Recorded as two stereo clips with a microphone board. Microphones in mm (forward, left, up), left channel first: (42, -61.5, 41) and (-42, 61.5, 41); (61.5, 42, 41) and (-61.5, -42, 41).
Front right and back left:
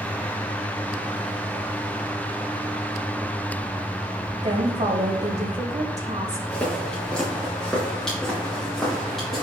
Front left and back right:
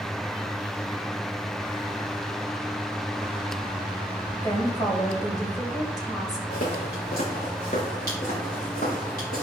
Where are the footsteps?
25° left, 3.5 m; by 9.4 s 35° left, 6.5 m.